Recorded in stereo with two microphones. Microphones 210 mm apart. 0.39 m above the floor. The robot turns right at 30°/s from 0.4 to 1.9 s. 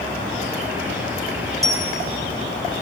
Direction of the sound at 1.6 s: 15° right (ahead or behind).